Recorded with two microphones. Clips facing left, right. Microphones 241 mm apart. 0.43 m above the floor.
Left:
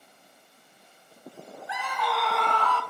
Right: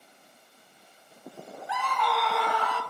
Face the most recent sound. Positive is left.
turn(degrees=-15)  # may be behind; listen again after turning